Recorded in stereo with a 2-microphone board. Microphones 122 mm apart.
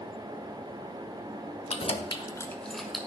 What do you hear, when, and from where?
1.7 s keys jangling: 60° left (ahead or behind), 1.1 m; by 3.0 s 5° right (ahead or behind), 1.4 m